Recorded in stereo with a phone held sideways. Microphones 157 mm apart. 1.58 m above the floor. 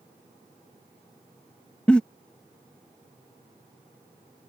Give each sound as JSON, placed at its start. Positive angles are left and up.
{"t": 1.9, "sound": "a giggle", "side_deg": 5}